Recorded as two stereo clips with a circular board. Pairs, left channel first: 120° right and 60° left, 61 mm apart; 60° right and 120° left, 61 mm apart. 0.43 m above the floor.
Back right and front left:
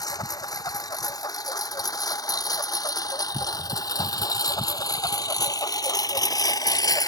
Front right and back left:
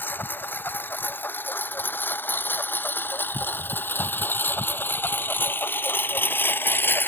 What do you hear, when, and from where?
0.0 s a lawn mower: 120° right; by 7.1 s 115° right